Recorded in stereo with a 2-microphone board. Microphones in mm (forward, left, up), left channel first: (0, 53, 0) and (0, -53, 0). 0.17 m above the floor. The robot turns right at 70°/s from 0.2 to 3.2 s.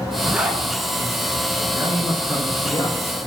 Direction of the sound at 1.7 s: 60° right.